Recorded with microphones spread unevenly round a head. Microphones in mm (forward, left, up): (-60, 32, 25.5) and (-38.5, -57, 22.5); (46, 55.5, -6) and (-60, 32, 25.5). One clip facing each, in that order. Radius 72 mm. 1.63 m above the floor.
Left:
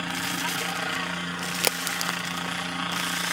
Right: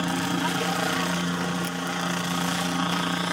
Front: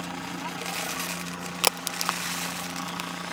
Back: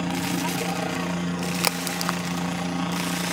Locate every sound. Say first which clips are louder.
0.0 s a helicopter: right 5 dB, back 8 dB; 125° right
1.6 s a crack: right 1 dB, back 2 dB; 95° left